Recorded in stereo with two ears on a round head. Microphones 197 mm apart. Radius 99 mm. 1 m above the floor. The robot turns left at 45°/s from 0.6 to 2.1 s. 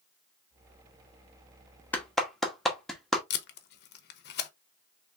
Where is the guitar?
I don't hear a guitar.